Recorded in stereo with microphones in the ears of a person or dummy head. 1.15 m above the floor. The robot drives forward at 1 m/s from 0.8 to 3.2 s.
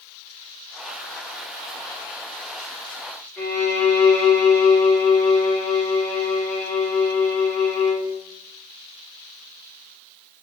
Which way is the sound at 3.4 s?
10° left (ahead or behind).